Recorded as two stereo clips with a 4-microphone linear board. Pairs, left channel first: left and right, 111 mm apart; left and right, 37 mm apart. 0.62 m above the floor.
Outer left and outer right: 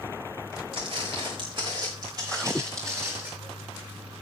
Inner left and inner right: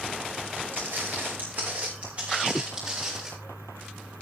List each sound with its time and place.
0.7 s footsteps: 60° right (ahead or behind), 4 m; by 3.3 s 20° right (ahead or behind), 4.5 m